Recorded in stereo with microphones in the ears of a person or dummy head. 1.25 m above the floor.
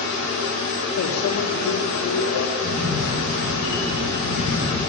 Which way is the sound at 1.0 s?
80° left.